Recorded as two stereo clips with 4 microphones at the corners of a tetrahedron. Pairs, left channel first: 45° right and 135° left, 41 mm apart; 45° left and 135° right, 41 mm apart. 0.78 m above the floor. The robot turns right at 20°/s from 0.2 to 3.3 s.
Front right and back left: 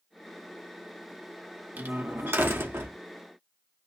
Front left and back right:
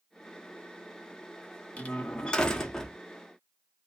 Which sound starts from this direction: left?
A door slam, at 1.8 s.